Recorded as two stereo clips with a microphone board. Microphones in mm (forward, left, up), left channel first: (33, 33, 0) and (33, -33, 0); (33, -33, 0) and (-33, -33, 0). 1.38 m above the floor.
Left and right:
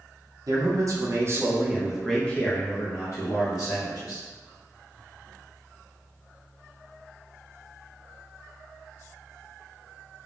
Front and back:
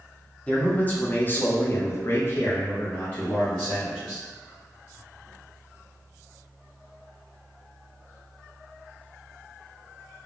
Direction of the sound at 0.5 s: 70° right.